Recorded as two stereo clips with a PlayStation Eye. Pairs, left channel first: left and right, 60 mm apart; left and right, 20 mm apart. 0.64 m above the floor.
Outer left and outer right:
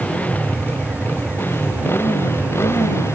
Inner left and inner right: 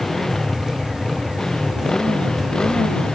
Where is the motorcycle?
20° left (ahead or behind); by 3.1 s 45° left (ahead or behind).